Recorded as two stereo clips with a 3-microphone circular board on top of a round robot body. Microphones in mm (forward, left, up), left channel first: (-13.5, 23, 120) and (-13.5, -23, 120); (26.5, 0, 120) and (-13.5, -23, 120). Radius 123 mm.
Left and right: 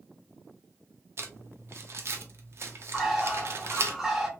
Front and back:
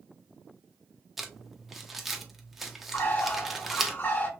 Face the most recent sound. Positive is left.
turn(degrees=-5)